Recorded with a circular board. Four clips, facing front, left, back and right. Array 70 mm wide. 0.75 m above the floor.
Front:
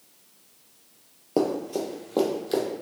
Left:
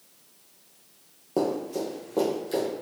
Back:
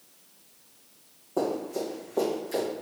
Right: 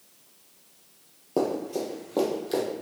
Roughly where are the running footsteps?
Ahead.